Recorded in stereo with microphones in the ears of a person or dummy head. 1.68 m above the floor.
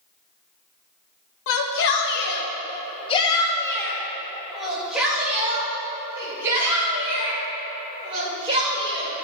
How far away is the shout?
About 1.8 m.